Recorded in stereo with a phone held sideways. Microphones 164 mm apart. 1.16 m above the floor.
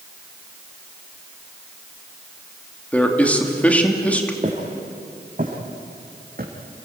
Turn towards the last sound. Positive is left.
turn(degrees=-65)  # may be behind; listen again after turning